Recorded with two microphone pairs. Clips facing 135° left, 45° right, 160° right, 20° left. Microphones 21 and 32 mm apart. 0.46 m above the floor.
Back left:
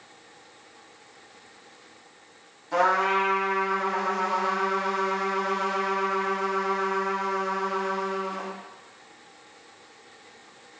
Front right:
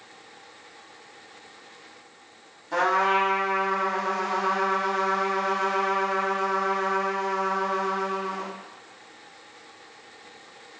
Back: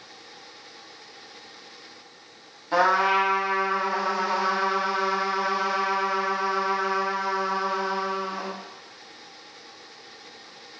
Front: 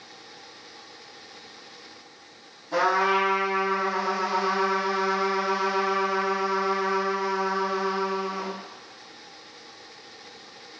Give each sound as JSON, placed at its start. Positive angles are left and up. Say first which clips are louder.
{"t": 2.7, "sound": "a trumpet", "louder": "even, back 2 dB", "azimuth_deg": -130, "distance_m": 0.8}